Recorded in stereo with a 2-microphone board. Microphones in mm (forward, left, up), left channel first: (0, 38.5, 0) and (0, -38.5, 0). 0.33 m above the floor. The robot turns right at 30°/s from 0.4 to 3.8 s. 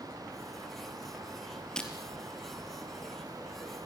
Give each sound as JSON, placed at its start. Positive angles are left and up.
{"t": 1.8, "sound": "breaking glass", "side_deg": 10, "distance_m": 3.5}